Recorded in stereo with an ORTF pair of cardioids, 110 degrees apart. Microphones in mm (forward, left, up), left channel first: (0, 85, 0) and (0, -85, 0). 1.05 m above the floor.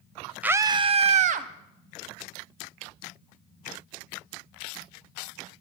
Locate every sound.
0.4 s a scream: 10° right, 0.5 m; by 1.5 s 55° right, 1.0 m